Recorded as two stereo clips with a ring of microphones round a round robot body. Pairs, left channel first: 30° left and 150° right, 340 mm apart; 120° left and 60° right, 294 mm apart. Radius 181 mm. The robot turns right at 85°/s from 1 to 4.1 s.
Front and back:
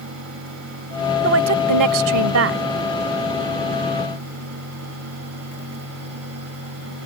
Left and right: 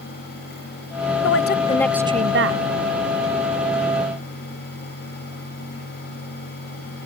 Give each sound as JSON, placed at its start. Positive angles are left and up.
{"t": 1.2, "sound": "a woman speaking", "azimuth_deg": 155}